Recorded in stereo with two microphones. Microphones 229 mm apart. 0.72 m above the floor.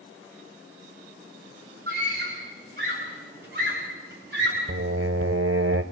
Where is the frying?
I don't hear frying.